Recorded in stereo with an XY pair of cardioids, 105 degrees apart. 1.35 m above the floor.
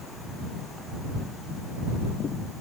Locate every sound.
Only background noise.